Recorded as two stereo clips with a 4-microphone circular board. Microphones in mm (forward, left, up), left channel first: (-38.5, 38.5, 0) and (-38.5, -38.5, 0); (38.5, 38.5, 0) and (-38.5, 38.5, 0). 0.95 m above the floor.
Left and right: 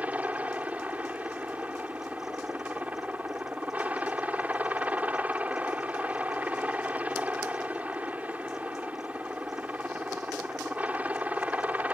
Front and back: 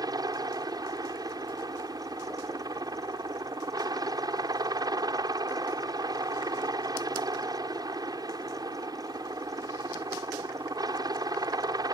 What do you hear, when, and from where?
0.0 s a helicopter: 160° right